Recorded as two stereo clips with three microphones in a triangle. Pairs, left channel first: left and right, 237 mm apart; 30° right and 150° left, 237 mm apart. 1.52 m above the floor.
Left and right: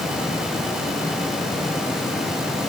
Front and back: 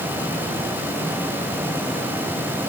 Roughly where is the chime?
No chime in this recording.